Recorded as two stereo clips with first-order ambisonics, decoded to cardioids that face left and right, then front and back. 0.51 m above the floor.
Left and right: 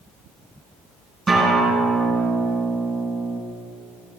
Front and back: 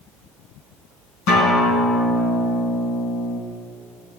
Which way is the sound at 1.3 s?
10° right.